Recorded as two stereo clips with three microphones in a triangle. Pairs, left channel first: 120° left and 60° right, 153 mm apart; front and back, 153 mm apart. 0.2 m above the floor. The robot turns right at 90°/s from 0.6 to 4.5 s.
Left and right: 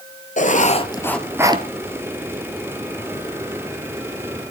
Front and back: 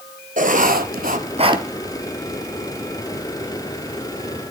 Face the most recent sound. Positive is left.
turn(degrees=145)